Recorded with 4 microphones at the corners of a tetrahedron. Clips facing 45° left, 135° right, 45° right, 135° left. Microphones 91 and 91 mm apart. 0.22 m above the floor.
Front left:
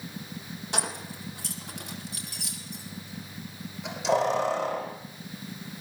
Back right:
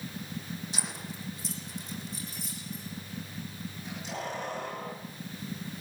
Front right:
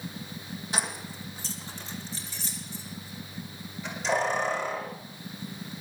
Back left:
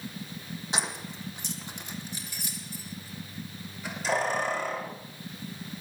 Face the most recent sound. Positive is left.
turn(degrees=50)